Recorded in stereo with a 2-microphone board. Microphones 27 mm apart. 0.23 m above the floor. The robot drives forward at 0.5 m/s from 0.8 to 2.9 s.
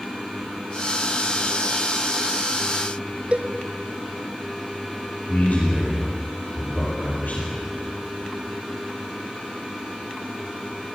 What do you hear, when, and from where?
3.3 s a cowbell: 50° right (ahead or behind), 0.6 m
5.3 s a man speaking: 75° left (ahead or behind), 6.5 m